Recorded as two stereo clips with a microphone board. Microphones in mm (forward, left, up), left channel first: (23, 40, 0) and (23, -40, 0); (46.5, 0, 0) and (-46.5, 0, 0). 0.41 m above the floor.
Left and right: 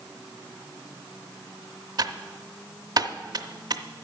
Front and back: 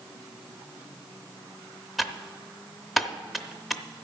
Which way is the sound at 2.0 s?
90° right.